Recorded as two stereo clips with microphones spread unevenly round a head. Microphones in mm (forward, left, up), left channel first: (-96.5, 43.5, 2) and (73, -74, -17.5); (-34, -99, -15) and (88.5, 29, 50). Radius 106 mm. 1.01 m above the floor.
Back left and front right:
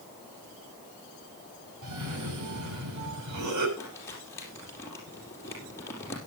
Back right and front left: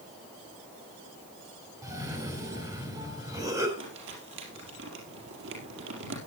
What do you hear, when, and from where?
1.8 s a cough: 30° right, 5 m
3.8 s crumpling: 65° left, 4.5 m